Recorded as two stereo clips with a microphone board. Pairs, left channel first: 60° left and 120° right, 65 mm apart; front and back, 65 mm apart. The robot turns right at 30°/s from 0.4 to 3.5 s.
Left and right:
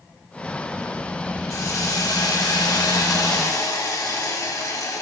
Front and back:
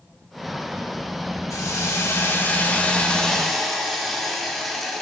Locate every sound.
1.5 s a hiss: 30° left, 1.7 m; by 5.0 s 90° left, 1.7 m